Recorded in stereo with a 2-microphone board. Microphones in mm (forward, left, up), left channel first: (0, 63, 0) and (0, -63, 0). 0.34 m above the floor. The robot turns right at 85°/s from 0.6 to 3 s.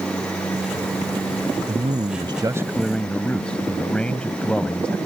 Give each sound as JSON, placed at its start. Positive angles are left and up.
{"t": 1.7, "sound": "a man speaking", "azimuth_deg": -100}